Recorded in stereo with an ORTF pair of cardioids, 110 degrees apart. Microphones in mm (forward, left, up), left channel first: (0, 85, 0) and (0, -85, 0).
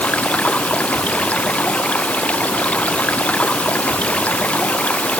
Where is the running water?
5° left.